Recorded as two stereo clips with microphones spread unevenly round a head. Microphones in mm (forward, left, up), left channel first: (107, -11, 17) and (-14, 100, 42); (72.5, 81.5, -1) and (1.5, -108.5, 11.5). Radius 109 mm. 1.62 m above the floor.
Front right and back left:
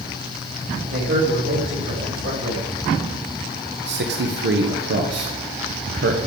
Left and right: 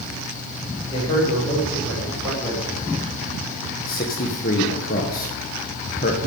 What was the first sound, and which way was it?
A man speaking, 140° left.